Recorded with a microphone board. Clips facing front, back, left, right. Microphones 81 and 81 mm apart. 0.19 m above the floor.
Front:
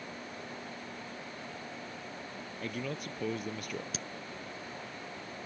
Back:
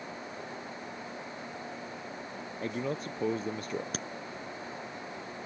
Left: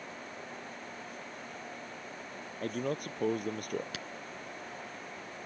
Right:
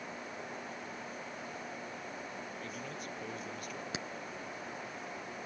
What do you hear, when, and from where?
2.6 s a man speaking: 120° left
3.9 s a crack: 155° right